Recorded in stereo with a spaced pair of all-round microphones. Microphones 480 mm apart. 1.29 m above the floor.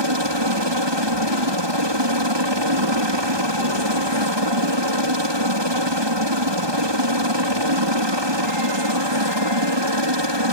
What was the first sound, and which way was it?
A helicopter, 60° right (ahead or behind).